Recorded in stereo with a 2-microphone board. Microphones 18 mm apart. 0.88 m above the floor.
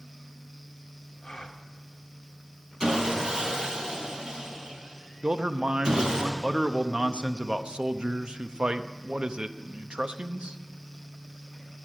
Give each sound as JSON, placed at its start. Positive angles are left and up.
{"t": 1.2, "sound": "a gasp", "side_deg": 45, "distance_m": 1.1}
{"t": 2.8, "sound": "sawing", "side_deg": -50, "distance_m": 4.5}
{"t": 5.2, "sound": "a man speaking", "side_deg": -65, "distance_m": 0.6}